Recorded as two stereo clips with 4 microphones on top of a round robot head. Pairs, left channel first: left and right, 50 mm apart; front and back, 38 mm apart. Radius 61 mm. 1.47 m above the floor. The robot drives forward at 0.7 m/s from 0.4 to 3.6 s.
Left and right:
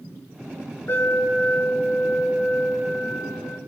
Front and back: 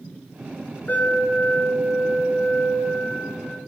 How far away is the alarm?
About 8 m.